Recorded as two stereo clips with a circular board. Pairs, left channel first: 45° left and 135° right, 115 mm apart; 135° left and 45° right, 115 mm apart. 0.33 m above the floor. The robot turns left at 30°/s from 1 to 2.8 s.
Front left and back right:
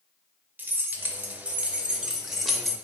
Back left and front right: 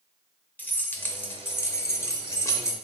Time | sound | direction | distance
0.6 | keys jangling | 175° right | 0.5 m